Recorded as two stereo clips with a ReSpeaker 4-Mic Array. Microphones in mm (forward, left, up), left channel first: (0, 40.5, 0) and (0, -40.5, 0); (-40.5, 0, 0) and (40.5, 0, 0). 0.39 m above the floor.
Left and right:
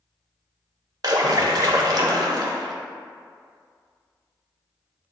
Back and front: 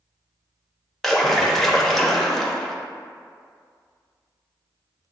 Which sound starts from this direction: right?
A splash, at 1.0 s.